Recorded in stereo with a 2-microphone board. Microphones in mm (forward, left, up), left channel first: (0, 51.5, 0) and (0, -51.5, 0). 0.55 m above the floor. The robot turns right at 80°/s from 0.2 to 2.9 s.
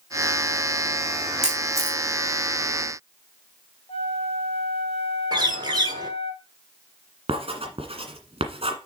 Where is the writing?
70° right (ahead or behind), 1.6 m.